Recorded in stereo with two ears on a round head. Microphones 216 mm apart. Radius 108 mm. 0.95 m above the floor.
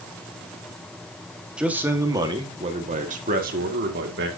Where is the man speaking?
5° right (ahead or behind), 1.6 m; by 4.3 s 50° right (ahead or behind), 2.5 m.